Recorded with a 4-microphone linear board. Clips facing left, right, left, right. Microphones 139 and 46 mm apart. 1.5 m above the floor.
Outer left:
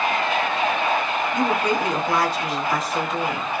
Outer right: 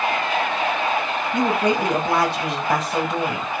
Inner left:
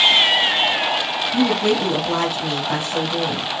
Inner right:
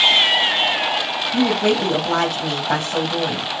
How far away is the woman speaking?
About 2 m.